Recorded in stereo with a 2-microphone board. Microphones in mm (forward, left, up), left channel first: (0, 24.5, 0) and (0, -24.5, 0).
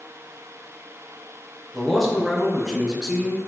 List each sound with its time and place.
1.7 s a man speaking: 5° left (ahead or behind), 2 m; by 3.4 s 25° right (ahead or behind), 1.8 m